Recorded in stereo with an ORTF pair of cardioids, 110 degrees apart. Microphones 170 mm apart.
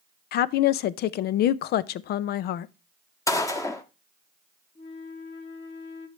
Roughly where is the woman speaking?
Ahead left.